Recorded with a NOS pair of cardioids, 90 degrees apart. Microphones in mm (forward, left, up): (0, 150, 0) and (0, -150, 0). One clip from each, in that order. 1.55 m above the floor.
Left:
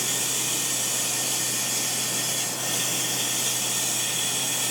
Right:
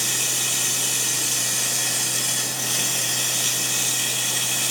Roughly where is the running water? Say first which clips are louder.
Right 3 dB; ahead right.